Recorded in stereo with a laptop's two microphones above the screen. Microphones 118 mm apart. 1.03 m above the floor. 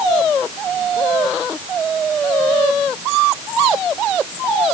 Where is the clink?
No clink in this recording.